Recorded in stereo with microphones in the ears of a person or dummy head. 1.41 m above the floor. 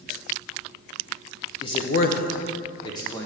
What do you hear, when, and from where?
1.6 s a man speaking: 25° left (ahead or behind), 0.7 m; by 3.3 s 15° left (ahead or behind), 1.4 m